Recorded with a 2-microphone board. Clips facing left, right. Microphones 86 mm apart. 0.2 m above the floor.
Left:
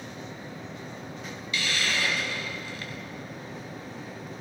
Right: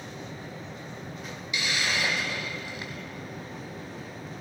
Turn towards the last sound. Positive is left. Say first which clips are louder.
# even
turn(degrees=-20)  # may be behind; listen again after turning